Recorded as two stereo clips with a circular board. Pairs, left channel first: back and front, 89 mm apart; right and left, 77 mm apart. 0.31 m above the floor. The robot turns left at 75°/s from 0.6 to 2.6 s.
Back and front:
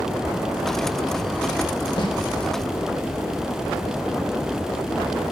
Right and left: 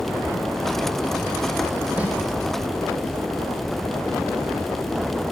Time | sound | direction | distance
2.0 | a snare drum | 165° left | 2.5 m